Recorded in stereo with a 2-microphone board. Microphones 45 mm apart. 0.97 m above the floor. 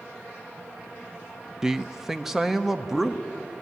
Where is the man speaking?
10° right (ahead or behind), 0.6 m; by 3.2 s 5° right (ahead or behind), 1.6 m.